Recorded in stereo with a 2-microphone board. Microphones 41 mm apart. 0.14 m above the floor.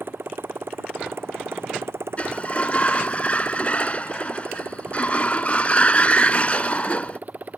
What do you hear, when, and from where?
0.0 s a motorcycle: 60° right (ahead or behind); by 7.6 s 40° right (ahead or behind)
2.2 s a sliding door: 35° left (ahead or behind)